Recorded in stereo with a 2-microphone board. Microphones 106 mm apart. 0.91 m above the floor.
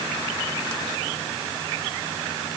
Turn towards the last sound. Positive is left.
No sound to turn to.